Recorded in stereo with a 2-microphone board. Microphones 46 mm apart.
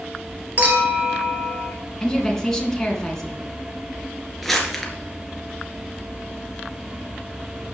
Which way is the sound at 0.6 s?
40° right (ahead or behind).